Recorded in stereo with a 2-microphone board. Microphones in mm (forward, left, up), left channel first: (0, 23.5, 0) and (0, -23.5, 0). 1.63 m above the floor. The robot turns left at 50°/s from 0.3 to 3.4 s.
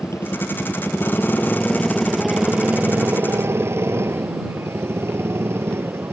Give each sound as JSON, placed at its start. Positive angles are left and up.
{"t": 0.0, "sound": "a motorcycle", "azimuth_deg": 95}